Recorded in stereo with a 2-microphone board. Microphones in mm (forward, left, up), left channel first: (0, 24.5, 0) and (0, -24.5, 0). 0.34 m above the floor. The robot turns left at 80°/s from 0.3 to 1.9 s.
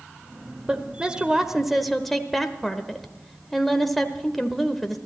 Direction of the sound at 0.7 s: 20° right (ahead or behind).